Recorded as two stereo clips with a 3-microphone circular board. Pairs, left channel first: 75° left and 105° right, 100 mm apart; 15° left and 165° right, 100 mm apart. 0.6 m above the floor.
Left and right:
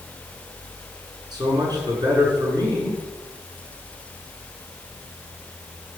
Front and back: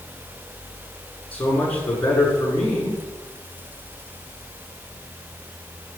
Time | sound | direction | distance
1.3 | a man speaking | 60° right | 7.5 m